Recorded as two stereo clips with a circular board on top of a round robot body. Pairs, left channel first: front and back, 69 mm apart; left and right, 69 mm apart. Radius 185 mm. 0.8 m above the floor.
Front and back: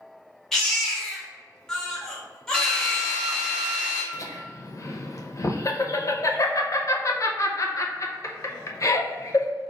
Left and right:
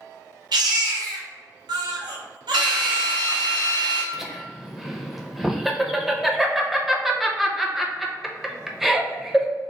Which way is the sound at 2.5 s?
80° right.